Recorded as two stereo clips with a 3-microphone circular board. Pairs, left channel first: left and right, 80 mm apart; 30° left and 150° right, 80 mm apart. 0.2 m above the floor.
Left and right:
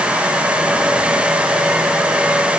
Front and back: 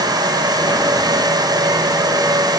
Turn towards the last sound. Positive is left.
No sound to turn to.